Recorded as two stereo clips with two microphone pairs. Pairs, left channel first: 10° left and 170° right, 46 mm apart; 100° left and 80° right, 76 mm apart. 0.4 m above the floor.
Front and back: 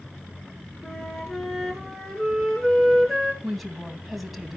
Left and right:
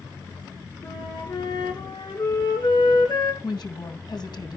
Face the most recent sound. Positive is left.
turn(degrees=105)